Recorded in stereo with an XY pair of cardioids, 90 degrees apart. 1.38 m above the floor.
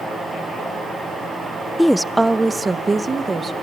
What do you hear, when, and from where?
1.8 s a woman speaking: 10° left, 0.6 m; by 3.5 s 35° right, 1.8 m